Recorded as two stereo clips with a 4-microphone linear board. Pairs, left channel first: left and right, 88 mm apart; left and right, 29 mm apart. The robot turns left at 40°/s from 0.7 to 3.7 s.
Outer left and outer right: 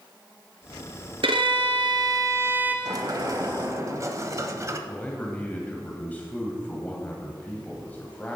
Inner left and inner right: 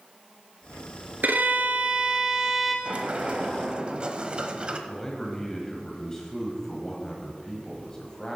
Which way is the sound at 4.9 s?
20° left (ahead or behind).